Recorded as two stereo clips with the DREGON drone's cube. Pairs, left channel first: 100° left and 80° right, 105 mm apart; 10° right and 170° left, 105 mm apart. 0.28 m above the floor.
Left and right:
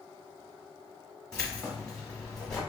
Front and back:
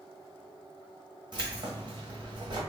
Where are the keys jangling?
Straight behind, 1.2 m.